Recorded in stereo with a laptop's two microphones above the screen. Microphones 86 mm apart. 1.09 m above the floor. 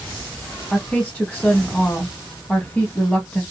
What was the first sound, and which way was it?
A woman speaking, 15° left (ahead or behind).